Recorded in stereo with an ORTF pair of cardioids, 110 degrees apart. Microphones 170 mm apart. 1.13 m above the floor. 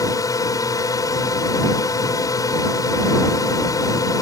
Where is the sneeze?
No sneeze in this recording.